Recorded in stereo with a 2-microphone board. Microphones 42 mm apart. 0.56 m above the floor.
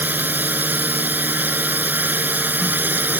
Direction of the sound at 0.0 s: 45° right (ahead or behind).